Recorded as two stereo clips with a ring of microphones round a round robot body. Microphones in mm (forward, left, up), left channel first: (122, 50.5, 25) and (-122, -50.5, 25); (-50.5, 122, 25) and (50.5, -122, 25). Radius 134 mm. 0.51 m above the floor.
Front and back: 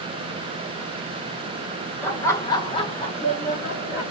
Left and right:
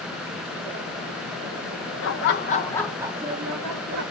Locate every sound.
2.0 s laughter: 105° left, 1.1 m; by 4.0 s 45° right, 1.3 m